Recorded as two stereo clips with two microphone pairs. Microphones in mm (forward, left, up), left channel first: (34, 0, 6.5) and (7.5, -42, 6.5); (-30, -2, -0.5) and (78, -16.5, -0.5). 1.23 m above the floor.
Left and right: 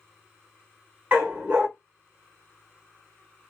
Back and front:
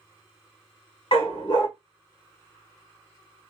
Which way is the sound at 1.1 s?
Straight behind.